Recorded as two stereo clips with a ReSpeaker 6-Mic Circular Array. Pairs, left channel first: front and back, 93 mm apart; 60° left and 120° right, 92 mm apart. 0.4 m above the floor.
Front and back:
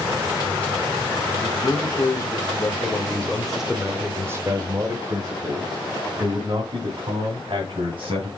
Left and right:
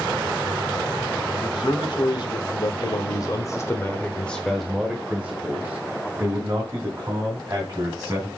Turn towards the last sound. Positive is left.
turn(degrees=-175)